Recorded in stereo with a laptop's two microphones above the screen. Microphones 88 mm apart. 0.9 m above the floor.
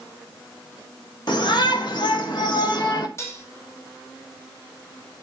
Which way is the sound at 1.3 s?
55° left (ahead or behind).